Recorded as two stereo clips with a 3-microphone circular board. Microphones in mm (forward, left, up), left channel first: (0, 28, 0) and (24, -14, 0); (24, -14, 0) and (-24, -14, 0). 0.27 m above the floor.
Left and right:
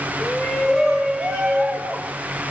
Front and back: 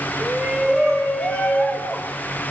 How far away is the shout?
About 1.1 m.